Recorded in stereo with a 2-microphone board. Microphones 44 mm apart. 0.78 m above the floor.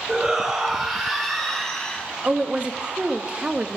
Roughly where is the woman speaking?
Right.